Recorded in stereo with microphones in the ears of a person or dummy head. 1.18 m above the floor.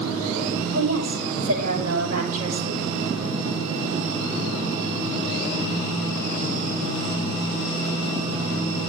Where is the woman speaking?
85° right, 6 m.